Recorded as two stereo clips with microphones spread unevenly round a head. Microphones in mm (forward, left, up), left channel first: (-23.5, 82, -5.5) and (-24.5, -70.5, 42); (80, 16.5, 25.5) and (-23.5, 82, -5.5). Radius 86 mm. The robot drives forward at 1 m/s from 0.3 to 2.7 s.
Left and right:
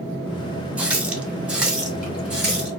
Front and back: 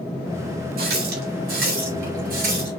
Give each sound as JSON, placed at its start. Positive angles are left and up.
{"t": 0.8, "sound": "a running tap", "azimuth_deg": -165, "distance_m": 1.9}